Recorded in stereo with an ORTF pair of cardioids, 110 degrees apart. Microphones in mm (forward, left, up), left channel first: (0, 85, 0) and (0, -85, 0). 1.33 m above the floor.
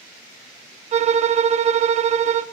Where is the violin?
40° right, 0.5 m.